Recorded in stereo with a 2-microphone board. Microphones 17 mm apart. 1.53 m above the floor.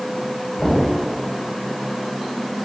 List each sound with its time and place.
0.6 s knocking: 20° left (ahead or behind), 8 m